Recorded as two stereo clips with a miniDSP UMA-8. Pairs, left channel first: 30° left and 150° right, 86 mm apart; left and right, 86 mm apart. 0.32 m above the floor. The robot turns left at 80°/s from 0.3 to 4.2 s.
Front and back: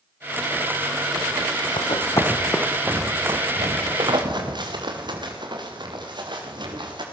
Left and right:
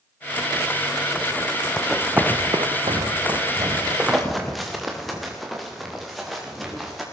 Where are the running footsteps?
10° left, 1.3 m; by 7.0 s straight behind, 6 m.